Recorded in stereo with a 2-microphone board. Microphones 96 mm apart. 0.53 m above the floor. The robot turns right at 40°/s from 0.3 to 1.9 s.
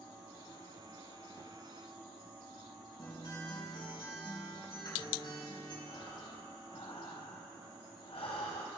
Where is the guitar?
55° left (ahead or behind), 4.5 m.